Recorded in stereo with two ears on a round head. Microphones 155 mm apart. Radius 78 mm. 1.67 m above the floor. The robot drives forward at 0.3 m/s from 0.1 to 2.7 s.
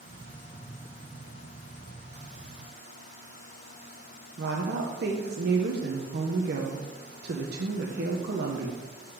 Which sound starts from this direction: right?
A woman speaking, at 4.4 s.